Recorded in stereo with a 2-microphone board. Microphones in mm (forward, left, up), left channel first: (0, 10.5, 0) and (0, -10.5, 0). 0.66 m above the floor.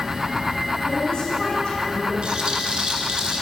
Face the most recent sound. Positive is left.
turn(degrees=-55)  # may be behind; listen again after turning